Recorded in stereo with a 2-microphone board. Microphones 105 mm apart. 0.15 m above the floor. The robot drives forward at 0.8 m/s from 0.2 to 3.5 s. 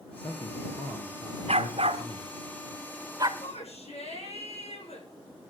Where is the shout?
75° left (ahead or behind), 8.5 m.